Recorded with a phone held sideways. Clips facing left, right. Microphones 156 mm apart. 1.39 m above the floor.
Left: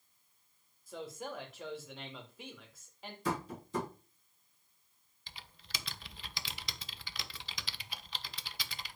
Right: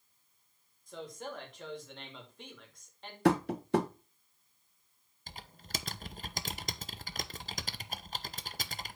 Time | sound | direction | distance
0.9 | a man speaking | 5° left (ahead or behind) | 2.5 m
3.2 | tapping | 75° right (ahead or behind) | 0.8 m
5.3 | typing on a keyboard | 45° right (ahead or behind) | 0.5 m